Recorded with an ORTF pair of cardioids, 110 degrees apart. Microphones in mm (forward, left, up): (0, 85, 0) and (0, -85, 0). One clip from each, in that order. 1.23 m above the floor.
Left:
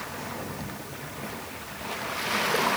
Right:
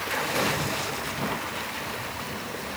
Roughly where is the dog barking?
No dog barking in this recording.